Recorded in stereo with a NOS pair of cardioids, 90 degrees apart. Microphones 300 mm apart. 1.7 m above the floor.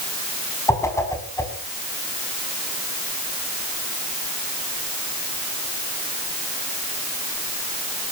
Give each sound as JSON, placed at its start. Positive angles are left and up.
{"t": 0.7, "sound": "a whoosh", "azimuth_deg": 10, "distance_m": 5.5}